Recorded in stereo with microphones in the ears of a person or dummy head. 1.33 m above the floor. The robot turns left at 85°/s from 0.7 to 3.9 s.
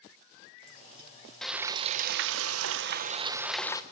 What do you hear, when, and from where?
1.4 s frying: 5° left, 1.2 m; by 3.8 s 160° left, 1.2 m